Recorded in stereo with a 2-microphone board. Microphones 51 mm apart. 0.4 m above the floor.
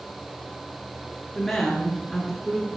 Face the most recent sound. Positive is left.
turn(degrees=-10)  # may be behind; listen again after turning